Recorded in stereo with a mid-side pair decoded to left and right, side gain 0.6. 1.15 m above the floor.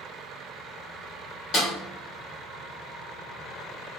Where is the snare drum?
50° left, 1.9 m.